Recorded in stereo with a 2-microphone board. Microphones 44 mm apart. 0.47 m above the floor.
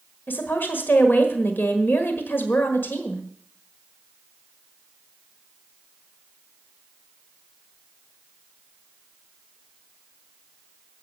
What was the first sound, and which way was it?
A woman speaking, 60° left (ahead or behind).